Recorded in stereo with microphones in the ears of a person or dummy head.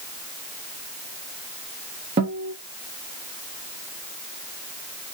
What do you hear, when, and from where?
2.2 s a guitar: 20° right (ahead or behind), 0.7 m